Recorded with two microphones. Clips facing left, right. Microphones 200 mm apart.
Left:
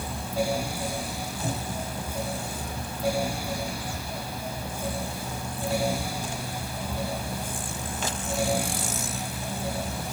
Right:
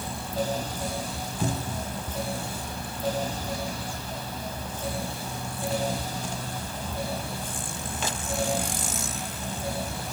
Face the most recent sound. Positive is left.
turn(degrees=-80)